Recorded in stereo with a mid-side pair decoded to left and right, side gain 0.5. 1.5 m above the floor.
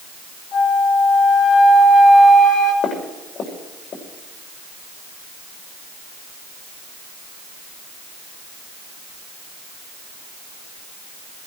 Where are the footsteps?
55° left, 7 m.